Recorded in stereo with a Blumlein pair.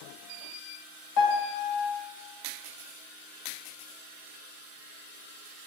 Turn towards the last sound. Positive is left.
turn(degrees=40)